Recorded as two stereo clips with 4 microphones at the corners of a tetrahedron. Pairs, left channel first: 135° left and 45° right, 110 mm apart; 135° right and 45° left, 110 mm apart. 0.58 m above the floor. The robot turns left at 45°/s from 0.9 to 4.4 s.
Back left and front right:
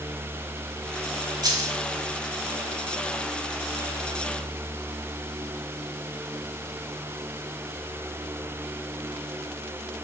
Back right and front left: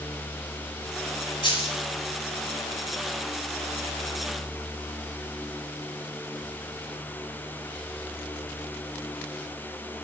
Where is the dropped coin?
95° right, 1.1 m; by 1.8 s 115° right, 1.1 m.